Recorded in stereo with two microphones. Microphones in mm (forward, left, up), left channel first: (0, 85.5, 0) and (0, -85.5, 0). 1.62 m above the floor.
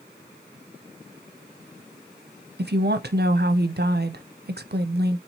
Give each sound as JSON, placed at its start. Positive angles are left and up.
{"t": 2.6, "sound": "a woman speaking", "side_deg": -70, "distance_m": 0.6}